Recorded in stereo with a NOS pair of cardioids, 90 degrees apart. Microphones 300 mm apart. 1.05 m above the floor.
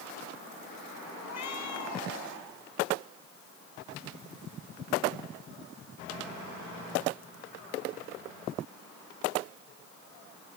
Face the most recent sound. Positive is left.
turn(degrees=60)